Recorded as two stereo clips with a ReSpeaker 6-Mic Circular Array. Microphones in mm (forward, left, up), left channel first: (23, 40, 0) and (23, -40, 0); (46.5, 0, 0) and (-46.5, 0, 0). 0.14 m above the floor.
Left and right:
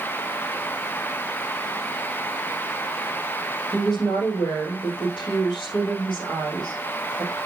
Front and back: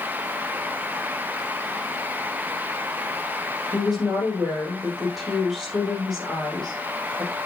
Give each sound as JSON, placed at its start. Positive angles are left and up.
{"t": 3.7, "sound": "a woman speaking", "azimuth_deg": 90, "distance_m": 7.0}